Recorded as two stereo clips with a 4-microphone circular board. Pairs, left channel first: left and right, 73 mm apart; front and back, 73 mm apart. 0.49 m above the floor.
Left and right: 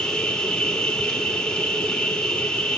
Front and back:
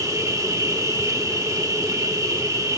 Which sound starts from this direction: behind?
An insect, at 0.0 s.